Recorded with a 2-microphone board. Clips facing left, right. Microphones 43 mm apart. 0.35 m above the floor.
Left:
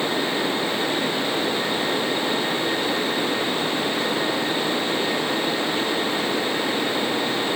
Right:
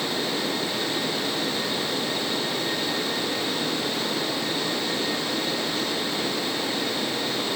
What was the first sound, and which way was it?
Only background noise.